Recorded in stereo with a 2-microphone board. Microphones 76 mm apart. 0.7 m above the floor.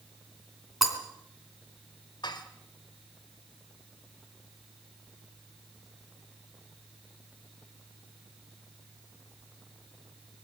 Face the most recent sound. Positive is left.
turn(degrees=75)  # may be behind; listen again after turning